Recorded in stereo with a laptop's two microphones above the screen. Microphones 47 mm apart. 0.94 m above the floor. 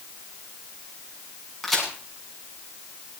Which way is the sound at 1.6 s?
5° left (ahead or behind).